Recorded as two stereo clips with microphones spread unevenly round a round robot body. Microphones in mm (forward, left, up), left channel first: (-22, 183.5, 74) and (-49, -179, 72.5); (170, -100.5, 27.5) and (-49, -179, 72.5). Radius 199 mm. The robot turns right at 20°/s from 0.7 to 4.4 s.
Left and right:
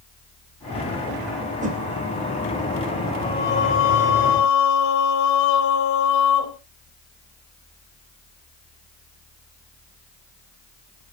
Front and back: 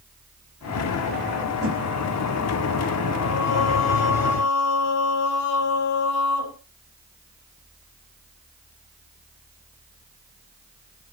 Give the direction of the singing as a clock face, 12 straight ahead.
12 o'clock.